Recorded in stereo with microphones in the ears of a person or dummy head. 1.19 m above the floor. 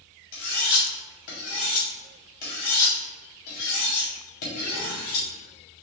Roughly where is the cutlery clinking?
Left.